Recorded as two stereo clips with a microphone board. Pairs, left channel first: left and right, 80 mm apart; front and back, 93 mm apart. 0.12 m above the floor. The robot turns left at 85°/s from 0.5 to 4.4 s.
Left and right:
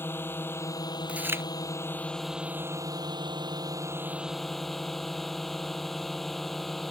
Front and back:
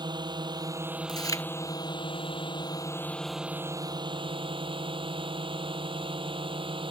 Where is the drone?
150° left; by 6.9 s 175° left.